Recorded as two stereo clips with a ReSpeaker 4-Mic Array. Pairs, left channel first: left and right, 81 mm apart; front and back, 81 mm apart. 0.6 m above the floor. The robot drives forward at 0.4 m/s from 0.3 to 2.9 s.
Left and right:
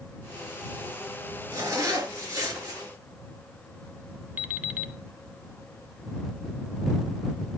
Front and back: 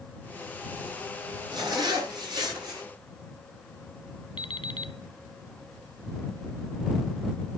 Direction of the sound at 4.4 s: 15° right.